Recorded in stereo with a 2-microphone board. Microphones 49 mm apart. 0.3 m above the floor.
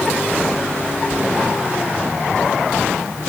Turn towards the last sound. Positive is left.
No sound to turn to.